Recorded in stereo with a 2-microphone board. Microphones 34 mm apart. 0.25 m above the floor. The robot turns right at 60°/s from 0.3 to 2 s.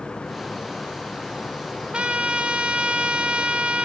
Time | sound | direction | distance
1.9 | a trumpet | 30° right (ahead or behind) | 0.6 m